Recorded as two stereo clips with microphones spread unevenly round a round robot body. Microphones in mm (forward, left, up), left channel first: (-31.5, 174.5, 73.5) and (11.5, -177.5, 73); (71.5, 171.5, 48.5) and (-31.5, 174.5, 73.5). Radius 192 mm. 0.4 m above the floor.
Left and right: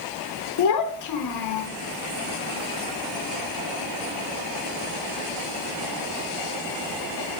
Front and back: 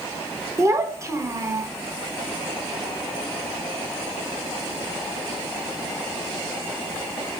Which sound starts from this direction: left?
A child speaking, at 0.6 s.